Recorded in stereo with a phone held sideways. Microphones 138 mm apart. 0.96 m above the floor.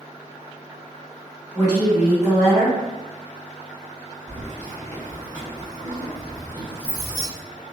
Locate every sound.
1.5 s a woman speaking: 20° left (ahead or behind), 1.4 m
4.3 s keys jangling: 20° left (ahead or behind), 1.2 m